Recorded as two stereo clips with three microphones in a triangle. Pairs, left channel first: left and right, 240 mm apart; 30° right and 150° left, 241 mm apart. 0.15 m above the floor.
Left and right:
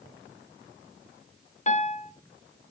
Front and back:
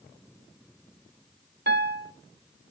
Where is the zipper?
No zipper in this recording.